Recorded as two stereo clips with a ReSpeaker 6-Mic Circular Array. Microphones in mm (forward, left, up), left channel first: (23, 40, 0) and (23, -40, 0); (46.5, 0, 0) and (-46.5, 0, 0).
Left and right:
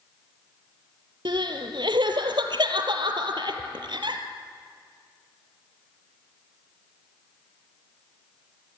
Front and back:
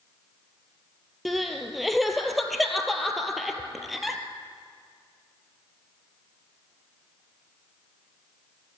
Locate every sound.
1.2 s crying: 90° right, 1.7 m